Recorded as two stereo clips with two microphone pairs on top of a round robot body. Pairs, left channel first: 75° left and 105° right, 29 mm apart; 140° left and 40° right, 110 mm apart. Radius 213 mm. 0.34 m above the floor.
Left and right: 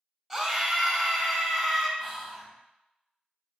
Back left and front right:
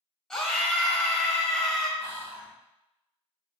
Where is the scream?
155° right, 1.2 m.